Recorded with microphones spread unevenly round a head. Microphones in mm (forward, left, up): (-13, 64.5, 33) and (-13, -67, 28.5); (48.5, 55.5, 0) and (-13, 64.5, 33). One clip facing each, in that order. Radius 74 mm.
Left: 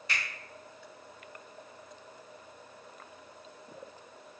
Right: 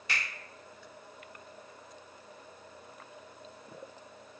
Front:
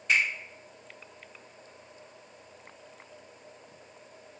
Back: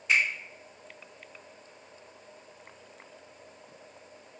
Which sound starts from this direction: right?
A finger snap, at 0.1 s.